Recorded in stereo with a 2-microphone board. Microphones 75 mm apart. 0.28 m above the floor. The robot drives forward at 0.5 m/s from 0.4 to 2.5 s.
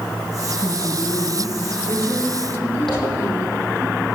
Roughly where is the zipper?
Centre.